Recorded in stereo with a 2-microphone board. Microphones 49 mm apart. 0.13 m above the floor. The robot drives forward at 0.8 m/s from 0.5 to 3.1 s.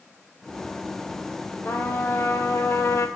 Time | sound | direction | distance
1.6 | a trumpet | 50° left (ahead or behind) | 3.5 m